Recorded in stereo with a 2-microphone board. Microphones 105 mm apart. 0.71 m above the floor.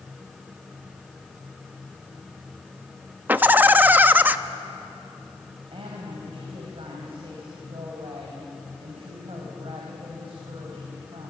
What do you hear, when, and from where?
3.3 s laughter: 20° right (ahead or behind), 0.7 m
5.7 s a woman speaking: 60° right (ahead or behind), 4.5 m